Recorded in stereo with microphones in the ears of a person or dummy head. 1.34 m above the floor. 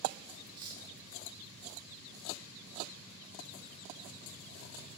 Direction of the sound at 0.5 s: 20° right (ahead or behind).